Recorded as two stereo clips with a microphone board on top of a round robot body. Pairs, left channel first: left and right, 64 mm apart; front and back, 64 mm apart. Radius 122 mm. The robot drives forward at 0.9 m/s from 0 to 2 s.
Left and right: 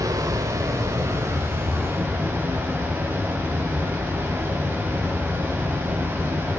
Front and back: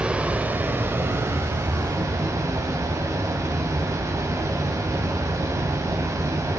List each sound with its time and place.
0.0 s running water: 105° right, 1.9 m; by 6.6 s 145° right, 3 m